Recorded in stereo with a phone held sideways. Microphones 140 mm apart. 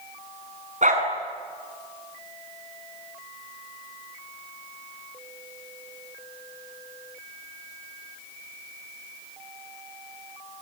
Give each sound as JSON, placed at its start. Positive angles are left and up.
{"t": 0.8, "sound": "a dog barking", "side_deg": -60, "distance_m": 6.5}